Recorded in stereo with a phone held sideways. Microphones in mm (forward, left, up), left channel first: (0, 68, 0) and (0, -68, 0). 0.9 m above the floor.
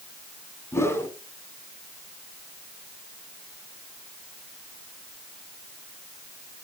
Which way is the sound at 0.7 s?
20° left (ahead or behind).